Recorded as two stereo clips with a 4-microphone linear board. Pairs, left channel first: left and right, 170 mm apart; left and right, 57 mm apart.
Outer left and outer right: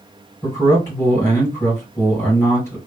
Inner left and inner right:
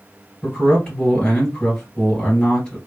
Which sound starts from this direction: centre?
A man speaking, at 0.4 s.